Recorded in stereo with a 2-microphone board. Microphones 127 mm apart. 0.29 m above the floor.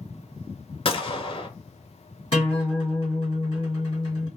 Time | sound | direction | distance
0.8 | a gunshot | 45° left (ahead or behind) | 0.5 m
2.3 | a guitar | 40° left (ahead or behind) | 1.9 m